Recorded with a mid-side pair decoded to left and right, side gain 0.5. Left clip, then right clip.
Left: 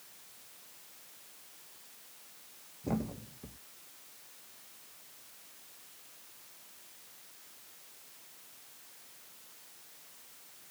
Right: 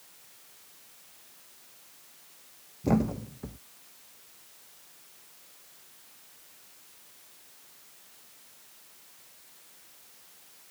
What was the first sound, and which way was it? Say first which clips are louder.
A thud: right 9 dB; 50° right.